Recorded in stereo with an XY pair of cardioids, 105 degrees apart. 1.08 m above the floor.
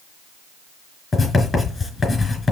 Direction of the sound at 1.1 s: 25° left.